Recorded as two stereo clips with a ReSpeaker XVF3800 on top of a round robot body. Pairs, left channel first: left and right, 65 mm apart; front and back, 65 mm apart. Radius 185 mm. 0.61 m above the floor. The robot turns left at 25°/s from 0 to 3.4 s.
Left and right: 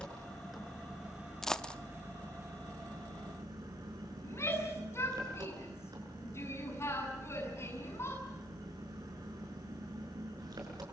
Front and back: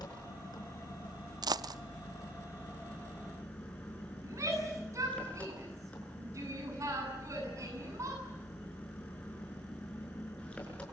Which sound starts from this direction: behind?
A dropped coin, at 1.4 s.